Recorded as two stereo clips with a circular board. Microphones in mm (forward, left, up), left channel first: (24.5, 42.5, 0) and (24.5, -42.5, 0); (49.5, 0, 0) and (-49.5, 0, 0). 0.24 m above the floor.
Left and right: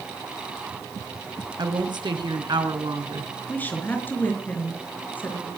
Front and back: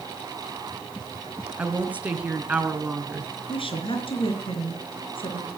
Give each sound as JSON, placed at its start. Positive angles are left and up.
{"t": 1.6, "sound": "a woman speaking", "azimuth_deg": -105, "distance_m": 2.5}
{"t": 3.5, "sound": "a woman speaking", "azimuth_deg": 25, "distance_m": 4.0}